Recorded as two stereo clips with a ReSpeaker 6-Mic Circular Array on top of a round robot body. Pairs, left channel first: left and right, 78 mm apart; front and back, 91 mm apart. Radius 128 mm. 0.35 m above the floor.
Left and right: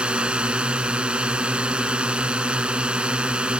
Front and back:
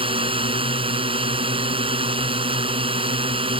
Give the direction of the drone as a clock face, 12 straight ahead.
6 o'clock.